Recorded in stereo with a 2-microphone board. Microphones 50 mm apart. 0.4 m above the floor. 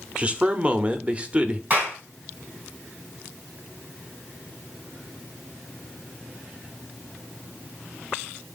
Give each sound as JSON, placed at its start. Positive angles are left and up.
{"t": 0.2, "sound": "a man speaking", "side_deg": -25, "distance_m": 0.8}
{"t": 1.7, "sound": "a clap", "side_deg": -30, "distance_m": 3.5}